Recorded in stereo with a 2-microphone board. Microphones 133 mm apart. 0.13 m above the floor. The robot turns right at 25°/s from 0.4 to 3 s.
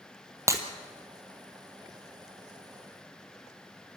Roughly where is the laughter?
I don't hear laughter.